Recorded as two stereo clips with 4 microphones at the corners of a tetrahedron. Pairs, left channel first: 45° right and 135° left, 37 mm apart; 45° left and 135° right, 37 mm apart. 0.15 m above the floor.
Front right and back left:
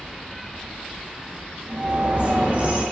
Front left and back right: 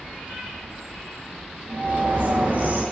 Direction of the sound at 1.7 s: 175° right.